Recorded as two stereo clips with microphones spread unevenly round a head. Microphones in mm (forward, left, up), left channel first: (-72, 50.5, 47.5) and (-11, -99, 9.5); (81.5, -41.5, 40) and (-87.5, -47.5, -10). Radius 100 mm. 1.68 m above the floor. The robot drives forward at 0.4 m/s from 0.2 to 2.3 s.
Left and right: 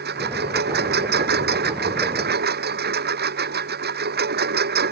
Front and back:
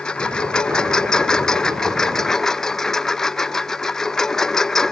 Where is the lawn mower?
80° right; by 4.9 s 85° right.